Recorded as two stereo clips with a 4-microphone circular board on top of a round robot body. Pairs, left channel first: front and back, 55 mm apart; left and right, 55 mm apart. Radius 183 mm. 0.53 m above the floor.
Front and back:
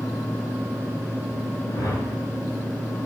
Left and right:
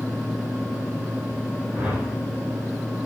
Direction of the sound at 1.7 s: 20° right.